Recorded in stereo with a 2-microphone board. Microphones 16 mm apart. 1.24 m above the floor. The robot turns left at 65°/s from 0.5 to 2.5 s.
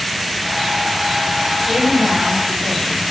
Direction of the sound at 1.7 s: 80° right.